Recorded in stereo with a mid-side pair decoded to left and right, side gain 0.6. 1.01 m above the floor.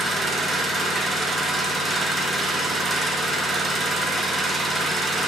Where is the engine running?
15° right, 0.7 m.